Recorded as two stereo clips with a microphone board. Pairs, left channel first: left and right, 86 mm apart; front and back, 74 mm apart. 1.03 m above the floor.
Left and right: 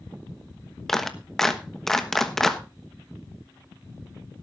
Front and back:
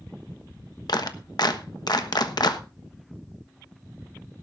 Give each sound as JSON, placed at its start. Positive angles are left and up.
{"t": 0.9, "sound": "a clap", "azimuth_deg": 5, "distance_m": 1.1}